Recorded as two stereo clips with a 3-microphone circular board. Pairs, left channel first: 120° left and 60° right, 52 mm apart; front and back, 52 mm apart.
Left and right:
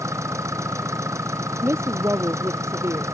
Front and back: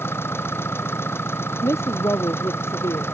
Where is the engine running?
40° right.